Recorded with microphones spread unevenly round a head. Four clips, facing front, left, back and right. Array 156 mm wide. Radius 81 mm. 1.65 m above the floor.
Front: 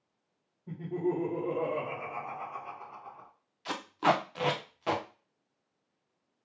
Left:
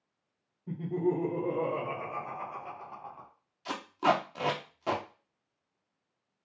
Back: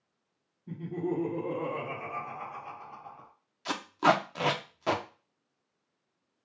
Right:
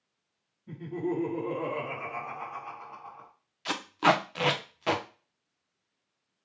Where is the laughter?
50° left, 2 m; by 3.3 s 100° left, 1.1 m.